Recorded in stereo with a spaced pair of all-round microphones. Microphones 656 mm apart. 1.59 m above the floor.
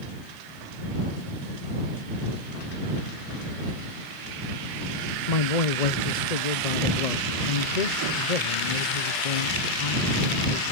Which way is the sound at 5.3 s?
80° left.